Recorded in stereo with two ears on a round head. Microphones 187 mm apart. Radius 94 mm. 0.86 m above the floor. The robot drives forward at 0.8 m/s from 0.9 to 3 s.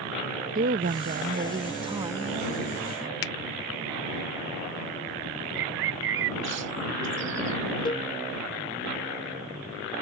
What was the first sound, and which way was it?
A woman speaking, 40° right (ahead or behind).